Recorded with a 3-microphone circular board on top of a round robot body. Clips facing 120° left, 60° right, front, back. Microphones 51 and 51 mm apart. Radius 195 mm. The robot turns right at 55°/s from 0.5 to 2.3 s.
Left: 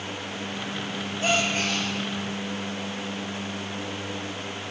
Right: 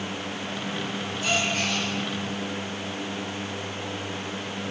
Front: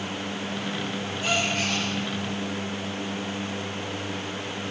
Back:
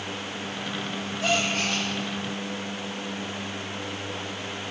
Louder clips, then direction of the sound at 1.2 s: Left 2 dB, back 1 dB; 165° left.